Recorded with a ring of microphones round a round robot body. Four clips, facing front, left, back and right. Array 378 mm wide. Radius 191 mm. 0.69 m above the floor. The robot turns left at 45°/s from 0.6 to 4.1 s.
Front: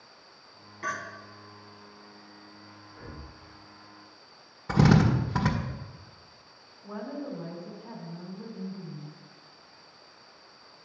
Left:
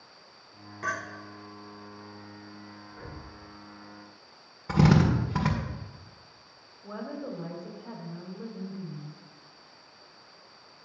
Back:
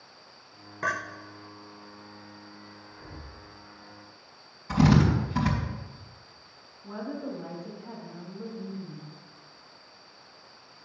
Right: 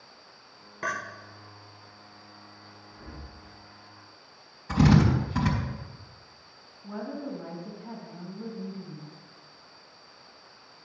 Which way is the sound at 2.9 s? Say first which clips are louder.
Even, front 3 dB; 80° left.